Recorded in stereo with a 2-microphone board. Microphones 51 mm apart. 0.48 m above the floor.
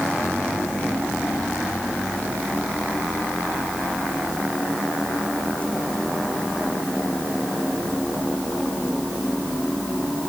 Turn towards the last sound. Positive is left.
No sound to turn to.